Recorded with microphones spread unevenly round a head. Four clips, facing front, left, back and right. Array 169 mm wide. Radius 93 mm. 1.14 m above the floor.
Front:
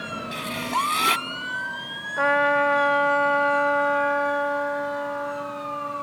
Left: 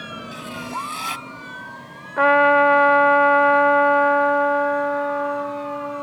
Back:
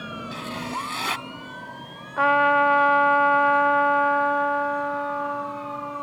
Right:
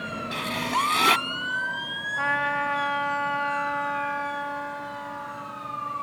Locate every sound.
0.3 s writing: 70° right
2.2 s a trumpet: 80° left